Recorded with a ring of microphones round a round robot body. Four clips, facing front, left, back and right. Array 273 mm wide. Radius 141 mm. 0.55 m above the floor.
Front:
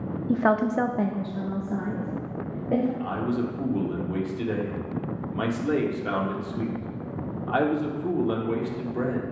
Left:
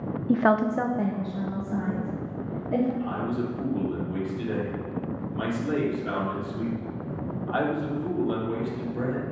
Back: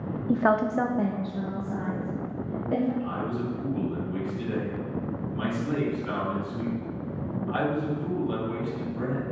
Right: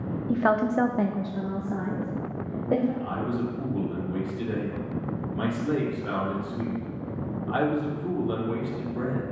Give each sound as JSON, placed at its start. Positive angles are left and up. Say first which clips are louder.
{"t": 0.3, "sound": "a woman speaking", "louder": "left 1 dB, front 1 dB", "azimuth_deg": 85, "distance_m": 0.6}
{"t": 3.0, "sound": "a man speaking", "louder": "even, front 3 dB", "azimuth_deg": 0, "distance_m": 1.7}